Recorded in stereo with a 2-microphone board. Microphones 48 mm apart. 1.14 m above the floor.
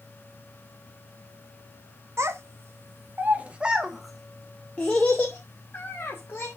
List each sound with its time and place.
2.2 s a child speaking: 70° right (ahead or behind), 1.1 m; by 6.5 s 45° left (ahead or behind), 2.0 m